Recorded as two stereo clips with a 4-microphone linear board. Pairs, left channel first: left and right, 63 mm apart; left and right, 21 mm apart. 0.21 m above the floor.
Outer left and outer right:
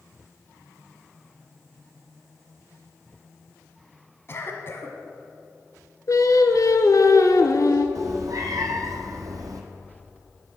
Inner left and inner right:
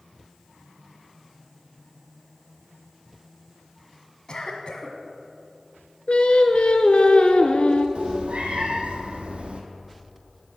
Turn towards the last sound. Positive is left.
turn(degrees=-65)  # may be behind; listen again after turning